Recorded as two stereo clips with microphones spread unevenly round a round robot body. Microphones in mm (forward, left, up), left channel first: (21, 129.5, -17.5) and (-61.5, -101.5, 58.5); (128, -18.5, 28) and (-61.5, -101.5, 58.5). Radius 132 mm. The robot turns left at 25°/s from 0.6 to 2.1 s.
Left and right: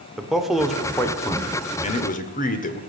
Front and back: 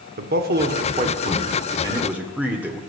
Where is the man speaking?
155° left, 1.5 m; by 2.8 s 115° left, 1.5 m.